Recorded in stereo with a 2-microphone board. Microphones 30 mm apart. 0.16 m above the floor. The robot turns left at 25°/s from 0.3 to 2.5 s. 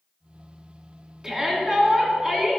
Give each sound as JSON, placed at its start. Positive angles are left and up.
{"t": 1.2, "sound": "a shout", "side_deg": -20, "distance_m": 1.4}